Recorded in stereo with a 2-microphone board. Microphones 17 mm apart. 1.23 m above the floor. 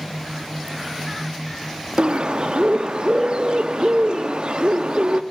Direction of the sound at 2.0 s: 55° right (ahead or behind).